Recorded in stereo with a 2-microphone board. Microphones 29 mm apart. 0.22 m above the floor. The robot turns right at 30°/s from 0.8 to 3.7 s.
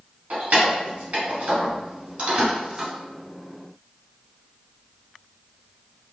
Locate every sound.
0.3 s keys jangling: 55° right (ahead or behind), 1.4 m; by 2.9 s 25° right (ahead or behind), 1.4 m